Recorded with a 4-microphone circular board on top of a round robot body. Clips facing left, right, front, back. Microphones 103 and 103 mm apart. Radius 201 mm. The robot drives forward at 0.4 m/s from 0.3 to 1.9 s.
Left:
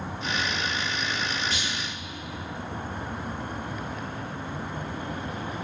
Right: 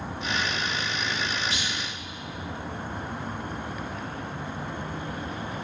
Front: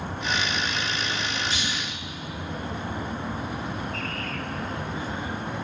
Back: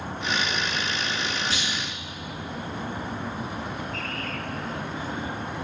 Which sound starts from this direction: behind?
A clunk, at 1.5 s.